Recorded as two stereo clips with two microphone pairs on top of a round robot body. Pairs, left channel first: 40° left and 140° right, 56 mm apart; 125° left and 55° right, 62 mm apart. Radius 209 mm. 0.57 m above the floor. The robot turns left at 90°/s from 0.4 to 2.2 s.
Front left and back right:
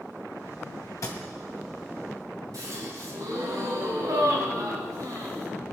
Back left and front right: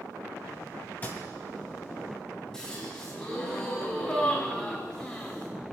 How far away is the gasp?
About 5 m.